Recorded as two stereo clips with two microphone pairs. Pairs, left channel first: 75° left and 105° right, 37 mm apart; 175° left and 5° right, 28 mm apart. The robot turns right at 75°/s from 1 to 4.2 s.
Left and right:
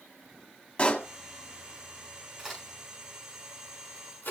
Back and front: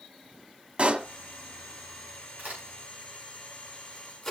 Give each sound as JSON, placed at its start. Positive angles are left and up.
{"t": 0.8, "sound": "a pop", "azimuth_deg": 30, "distance_m": 1.6}
{"t": 2.4, "sound": "a crack", "azimuth_deg": -30, "distance_m": 8.0}